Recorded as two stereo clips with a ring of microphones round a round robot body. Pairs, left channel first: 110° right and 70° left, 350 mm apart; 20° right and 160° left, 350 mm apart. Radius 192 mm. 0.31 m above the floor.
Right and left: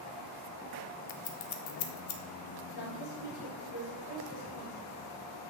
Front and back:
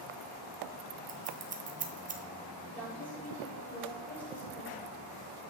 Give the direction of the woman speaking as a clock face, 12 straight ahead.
4 o'clock.